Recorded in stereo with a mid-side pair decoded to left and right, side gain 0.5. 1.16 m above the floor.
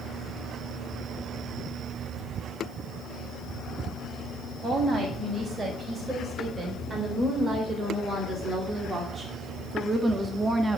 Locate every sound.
4.6 s a woman speaking: 35° right, 5.5 m; by 10.8 s 20° right, 1.7 m